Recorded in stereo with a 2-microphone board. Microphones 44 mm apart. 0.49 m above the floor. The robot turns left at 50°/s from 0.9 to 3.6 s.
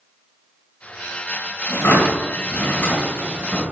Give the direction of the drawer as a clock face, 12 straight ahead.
8 o'clock.